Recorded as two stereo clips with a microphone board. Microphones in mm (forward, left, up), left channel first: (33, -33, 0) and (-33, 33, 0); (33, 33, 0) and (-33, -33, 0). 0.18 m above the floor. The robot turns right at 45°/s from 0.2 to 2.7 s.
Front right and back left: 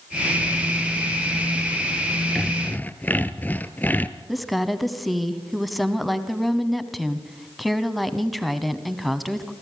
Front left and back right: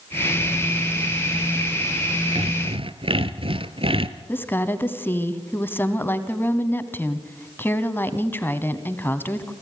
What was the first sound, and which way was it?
Sawing, 135° right.